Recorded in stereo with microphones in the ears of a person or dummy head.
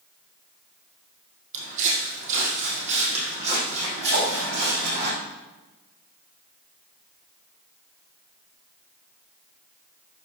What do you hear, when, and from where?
1.5 s footsteps: 40° right (ahead or behind), 3.5 m
4.1 s a whoosh: 55° right (ahead or behind), 3 m